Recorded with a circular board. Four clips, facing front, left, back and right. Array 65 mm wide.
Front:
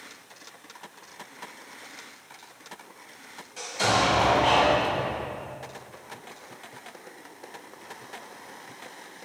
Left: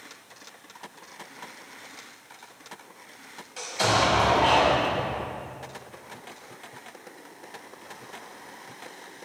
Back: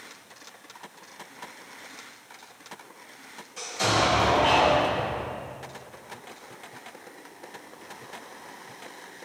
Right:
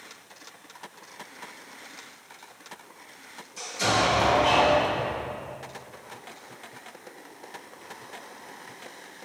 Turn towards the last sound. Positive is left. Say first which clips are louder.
# left 1 dB, front 1 dB
turn(degrees=85)